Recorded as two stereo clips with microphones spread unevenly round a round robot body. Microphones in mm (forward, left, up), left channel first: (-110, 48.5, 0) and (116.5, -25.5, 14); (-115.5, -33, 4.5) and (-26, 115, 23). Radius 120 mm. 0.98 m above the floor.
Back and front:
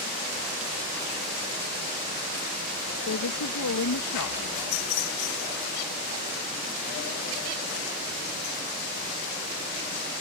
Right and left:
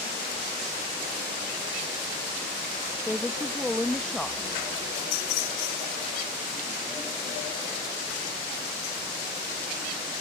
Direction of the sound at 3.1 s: 155° left.